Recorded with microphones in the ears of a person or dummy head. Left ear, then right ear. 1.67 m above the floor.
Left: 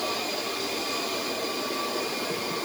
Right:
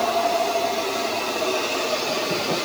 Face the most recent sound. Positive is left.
No sound to turn to.